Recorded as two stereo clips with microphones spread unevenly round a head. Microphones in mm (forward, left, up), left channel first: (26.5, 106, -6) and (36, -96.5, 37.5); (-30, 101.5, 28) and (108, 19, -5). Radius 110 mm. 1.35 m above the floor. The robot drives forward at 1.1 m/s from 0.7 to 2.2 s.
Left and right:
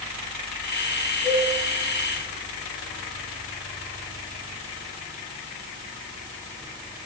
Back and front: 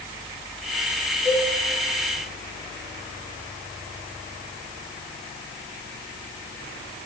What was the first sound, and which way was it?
A cowbell, straight behind.